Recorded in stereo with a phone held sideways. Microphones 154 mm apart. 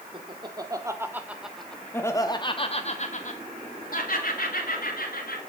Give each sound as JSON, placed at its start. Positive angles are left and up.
{"t": 0.1, "sound": "laughter", "side_deg": -35, "distance_m": 3.0}